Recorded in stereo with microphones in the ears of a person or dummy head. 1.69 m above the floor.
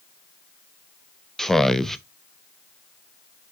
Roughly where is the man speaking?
Centre.